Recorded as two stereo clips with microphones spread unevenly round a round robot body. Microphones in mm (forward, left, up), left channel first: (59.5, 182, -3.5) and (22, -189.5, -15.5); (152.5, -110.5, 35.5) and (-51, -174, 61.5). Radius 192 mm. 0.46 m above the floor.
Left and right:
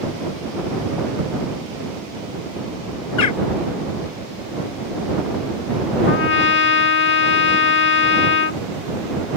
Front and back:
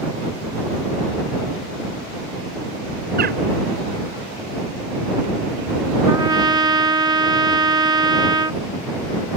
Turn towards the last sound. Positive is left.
turn(degrees=125)